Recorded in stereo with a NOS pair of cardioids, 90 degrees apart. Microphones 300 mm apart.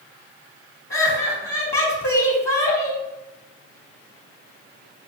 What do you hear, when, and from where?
0.9 s laughter: 30° left, 1.0 m